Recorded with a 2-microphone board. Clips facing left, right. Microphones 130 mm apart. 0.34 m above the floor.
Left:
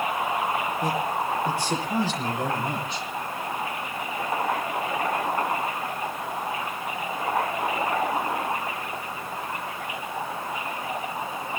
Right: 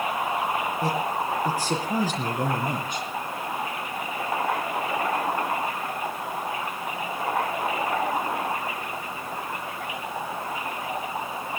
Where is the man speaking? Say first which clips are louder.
Even; 40° right (ahead or behind), 7 m; by 3.1 s 50° right (ahead or behind), 5.5 m.